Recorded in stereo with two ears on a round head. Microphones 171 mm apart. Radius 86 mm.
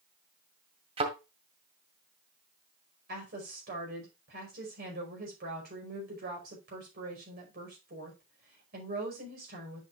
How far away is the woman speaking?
About 5 m.